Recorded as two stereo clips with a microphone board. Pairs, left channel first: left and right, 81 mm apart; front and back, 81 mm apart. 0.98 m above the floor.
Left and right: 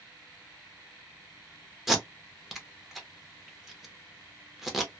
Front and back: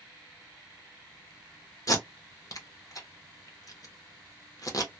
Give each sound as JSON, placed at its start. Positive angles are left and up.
{"t": 1.9, "sound": "tape being pulled", "azimuth_deg": -5, "distance_m": 0.7}